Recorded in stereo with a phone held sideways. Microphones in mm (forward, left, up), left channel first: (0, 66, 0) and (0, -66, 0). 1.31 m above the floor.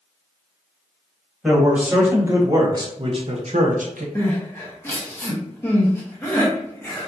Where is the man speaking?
5° right (ahead or behind), 1.5 m; by 4.0 s 85° right, 0.7 m.